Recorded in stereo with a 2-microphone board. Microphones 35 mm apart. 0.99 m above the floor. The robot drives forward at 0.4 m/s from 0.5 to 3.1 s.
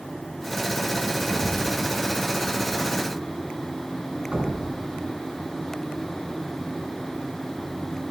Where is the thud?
20° right (ahead or behind), 3.5 m.